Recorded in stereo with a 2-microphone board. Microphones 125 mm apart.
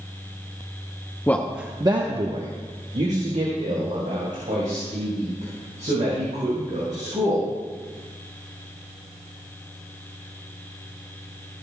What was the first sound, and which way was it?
A man speaking, 15° left (ahead or behind).